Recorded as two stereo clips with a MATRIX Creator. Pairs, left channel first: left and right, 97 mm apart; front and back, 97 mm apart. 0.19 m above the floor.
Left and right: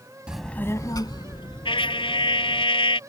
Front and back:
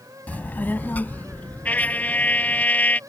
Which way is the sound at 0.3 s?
35° right.